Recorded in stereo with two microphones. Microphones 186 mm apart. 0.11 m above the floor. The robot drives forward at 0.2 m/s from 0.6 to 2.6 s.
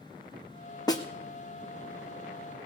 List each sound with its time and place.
0.9 s a snare drum: 20° left (ahead or behind), 1.2 m